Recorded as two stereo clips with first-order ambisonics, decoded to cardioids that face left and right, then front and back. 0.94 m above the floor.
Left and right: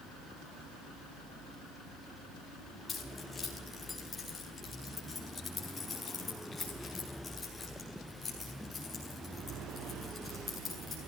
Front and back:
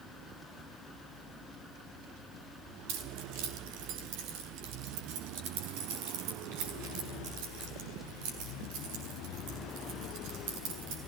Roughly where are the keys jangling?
Behind.